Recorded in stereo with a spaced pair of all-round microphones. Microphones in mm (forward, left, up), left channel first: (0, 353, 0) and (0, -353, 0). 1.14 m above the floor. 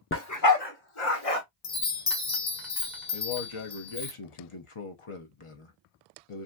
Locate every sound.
0.1 s a dog barking: 20° left (ahead or behind), 0.7 m; by 1.4 s 55° left (ahead or behind), 1.1 m
1.6 s a chime: 75° left (ahead or behind), 1.2 m
3.1 s a man speaking: 45° left (ahead or behind), 0.8 m